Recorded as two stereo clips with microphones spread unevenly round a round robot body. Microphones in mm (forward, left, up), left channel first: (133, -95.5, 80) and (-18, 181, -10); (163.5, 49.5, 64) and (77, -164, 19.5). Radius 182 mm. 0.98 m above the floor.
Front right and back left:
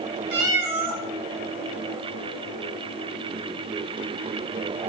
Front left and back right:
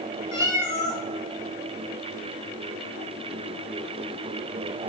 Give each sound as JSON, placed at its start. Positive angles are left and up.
{"t": 0.3, "sound": "a cat meowing", "azimuth_deg": 120, "distance_m": 1.1}